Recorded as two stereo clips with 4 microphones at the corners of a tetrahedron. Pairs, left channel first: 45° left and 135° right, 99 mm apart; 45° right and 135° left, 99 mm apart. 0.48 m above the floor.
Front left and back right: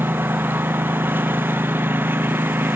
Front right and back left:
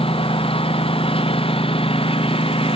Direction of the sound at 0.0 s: 65° right.